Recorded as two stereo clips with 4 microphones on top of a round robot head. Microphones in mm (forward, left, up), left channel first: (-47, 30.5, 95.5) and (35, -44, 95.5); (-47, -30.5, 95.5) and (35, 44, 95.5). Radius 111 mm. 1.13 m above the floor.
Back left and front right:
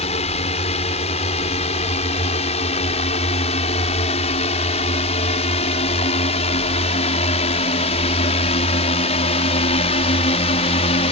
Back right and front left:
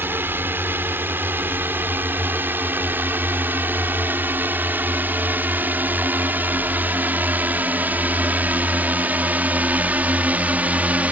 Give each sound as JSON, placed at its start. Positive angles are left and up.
{"t": 0.0, "sound": "a drone", "azimuth_deg": 115}